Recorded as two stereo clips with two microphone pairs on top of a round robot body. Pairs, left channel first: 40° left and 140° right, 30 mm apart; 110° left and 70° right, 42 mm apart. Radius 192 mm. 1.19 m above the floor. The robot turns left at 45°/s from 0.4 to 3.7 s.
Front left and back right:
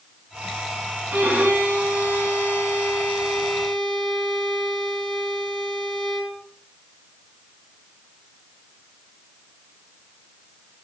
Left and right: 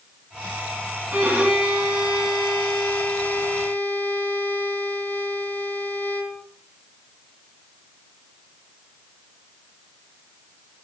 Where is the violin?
125° right, 5 m; by 6.4 s 120° left, 5 m.